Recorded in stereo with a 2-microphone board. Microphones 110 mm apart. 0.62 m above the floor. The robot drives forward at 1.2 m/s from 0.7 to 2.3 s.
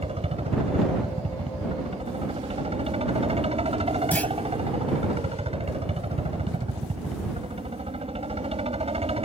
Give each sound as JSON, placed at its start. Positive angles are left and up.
{"t": 0.0, "sound": "a helicopter", "side_deg": -65}
{"t": 4.1, "sound": "a clunk", "side_deg": 15}